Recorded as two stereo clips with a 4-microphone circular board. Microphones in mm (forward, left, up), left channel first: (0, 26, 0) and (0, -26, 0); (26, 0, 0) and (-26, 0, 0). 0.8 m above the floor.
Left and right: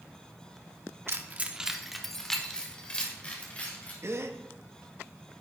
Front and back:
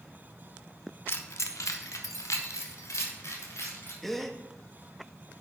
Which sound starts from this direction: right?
A gasp, at 4.0 s.